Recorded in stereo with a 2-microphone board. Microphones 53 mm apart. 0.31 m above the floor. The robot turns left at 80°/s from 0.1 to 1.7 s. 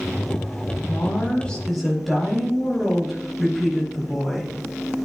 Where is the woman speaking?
65° left, 7.5 m; by 4.5 s straight ahead, 7.5 m.